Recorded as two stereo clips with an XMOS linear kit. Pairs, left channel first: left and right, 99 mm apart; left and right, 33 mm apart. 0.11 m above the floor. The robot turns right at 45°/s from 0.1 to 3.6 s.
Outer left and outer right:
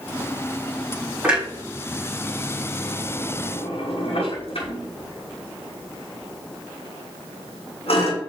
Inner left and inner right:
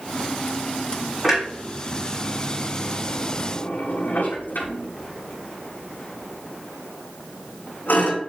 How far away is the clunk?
About 6.5 m.